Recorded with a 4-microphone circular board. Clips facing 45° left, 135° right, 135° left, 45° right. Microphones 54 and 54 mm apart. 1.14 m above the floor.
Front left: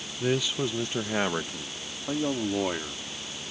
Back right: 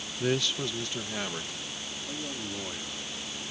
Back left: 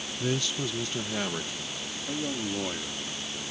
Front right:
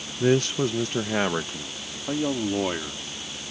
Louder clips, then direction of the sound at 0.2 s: Front left 2 dB, front right 9 dB; 50° right.